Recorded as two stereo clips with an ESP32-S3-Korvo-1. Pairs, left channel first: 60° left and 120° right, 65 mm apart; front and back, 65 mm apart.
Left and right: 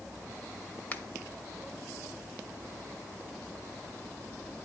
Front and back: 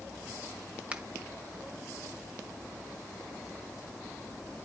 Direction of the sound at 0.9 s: 115° left.